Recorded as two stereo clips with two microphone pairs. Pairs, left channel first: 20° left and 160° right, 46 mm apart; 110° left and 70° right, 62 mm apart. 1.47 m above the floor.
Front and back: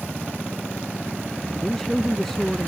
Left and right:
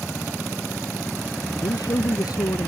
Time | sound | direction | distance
1.6 | a man speaking | 105° left | ?